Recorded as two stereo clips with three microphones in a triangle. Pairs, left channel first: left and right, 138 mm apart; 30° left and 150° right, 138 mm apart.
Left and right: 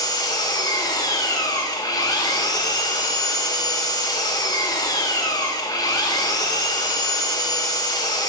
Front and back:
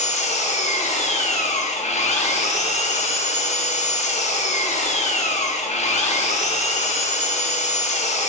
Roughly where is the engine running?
Ahead left.